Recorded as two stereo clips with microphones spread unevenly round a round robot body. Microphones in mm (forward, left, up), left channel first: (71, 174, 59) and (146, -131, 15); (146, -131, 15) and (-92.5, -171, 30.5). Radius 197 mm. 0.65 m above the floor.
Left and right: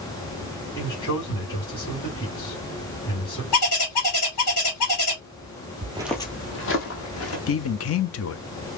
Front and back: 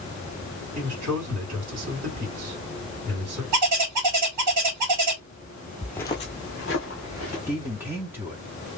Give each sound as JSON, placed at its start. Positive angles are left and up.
{"t": 0.8, "sound": "a man speaking", "azimuth_deg": 170, "distance_m": 2.0}
{"t": 3.5, "sound": "a bird", "azimuth_deg": 160, "distance_m": 1.9}
{"t": 5.8, "sound": "footsteps", "azimuth_deg": -95, "distance_m": 0.6}
{"t": 7.5, "sound": "a man speaking", "azimuth_deg": 110, "distance_m": 0.5}